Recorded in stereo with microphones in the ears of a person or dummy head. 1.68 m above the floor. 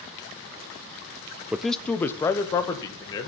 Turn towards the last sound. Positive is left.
turn(degrees=25)  # may be behind; listen again after turning